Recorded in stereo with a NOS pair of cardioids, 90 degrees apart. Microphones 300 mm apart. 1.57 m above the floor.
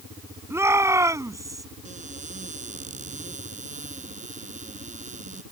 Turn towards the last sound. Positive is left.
turn(degrees=-25)